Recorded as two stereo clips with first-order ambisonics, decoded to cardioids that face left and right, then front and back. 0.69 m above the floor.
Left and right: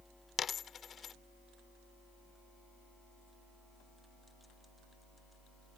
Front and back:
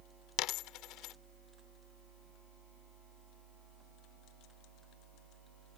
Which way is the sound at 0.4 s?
25° left.